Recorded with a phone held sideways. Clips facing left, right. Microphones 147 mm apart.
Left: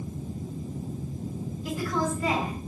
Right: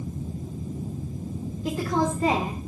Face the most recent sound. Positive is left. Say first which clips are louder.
# right 4 dB
turn(degrees=-45)  # may be behind; listen again after turning